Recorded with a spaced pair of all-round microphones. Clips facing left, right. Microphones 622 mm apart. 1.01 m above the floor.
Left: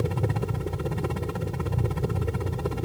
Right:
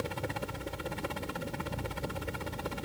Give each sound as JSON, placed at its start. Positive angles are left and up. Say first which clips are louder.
{"t": 0.0, "sound": "a helicopter", "louder": "left 8 dB", "side_deg": 70}